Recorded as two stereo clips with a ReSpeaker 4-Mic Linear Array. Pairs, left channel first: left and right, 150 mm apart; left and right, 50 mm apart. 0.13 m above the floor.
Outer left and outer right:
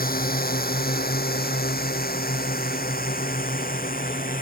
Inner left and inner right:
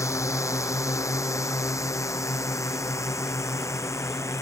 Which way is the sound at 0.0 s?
70° left (ahead or behind).